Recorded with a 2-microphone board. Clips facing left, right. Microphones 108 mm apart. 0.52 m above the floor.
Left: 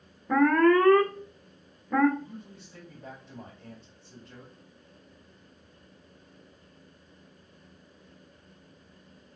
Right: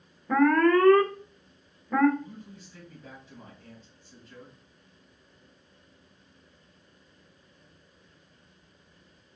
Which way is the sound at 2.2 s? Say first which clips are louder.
Even; 65° left (ahead or behind).